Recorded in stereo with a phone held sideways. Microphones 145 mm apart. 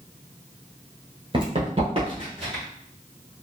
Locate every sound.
1.3 s running footsteps: 35° right (ahead or behind), 0.9 m; by 2.6 s 40° right (ahead or behind), 1.9 m